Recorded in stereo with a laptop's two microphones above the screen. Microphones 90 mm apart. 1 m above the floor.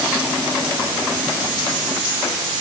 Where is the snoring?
I don't hear snoring.